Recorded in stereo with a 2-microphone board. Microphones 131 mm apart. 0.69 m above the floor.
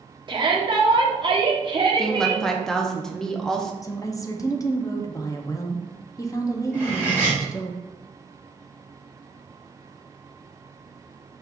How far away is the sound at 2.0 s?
About 0.6 m.